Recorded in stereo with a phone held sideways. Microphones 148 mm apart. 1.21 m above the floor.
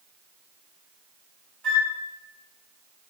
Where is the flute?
10° left (ahead or behind), 2 m.